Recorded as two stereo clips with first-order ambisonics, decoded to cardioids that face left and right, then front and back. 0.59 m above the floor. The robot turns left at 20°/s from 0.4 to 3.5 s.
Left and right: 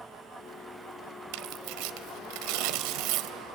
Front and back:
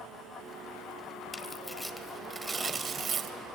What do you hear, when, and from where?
1.3 s tearing paper: 80° right, 1.0 m; by 3.4 s 120° right, 1.0 m